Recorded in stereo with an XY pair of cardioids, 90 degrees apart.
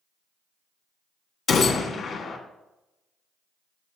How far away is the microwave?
I don't hear a microwave.